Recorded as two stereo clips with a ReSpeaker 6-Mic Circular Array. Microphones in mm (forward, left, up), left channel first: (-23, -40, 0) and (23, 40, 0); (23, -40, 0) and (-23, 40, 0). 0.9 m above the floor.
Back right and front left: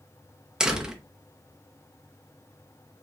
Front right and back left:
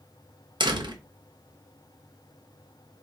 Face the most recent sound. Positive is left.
turn(degrees=140)